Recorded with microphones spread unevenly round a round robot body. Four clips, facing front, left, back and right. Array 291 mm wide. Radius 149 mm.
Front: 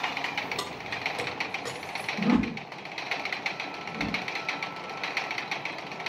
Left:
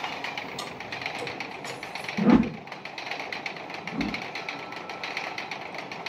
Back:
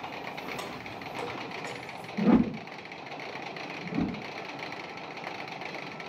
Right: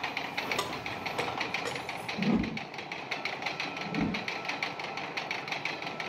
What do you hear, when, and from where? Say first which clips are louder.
0.6 s keys jangling: right 1 dB, front 3 dB; 55° right, 3 m; by 2.1 s 45° right, 4 m
2.2 s a whoosh: left 10 dB, back 2 dB; 90° left, 1.0 m
3.8 s a whoosh: left 1 dB, back 3 dB; 165° right, 3 m